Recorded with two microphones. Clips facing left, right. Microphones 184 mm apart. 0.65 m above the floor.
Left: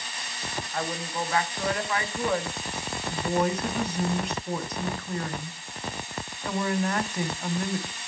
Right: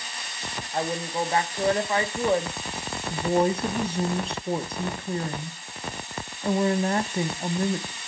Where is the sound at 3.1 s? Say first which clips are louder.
Right 4 dB; 30° right (ahead or behind), 0.6 m.